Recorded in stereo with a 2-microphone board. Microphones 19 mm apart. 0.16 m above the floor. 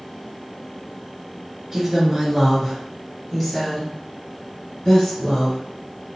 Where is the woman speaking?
20° right (ahead or behind), 1.6 m; by 5.6 s 45° left (ahead or behind), 1.9 m.